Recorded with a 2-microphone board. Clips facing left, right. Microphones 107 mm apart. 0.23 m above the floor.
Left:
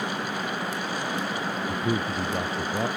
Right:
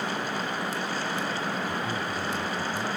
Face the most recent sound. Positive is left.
turn(degrees=65)  # may be behind; listen again after turning